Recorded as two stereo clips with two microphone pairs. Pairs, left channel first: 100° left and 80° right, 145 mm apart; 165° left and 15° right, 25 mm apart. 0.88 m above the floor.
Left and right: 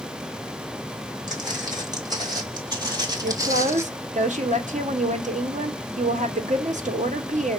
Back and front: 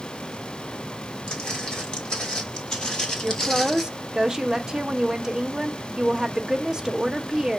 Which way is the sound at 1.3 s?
145° right.